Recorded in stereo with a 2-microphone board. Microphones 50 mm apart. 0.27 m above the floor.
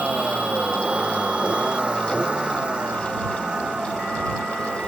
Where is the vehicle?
25° right (ahead or behind); by 4.9 s 15° right (ahead or behind).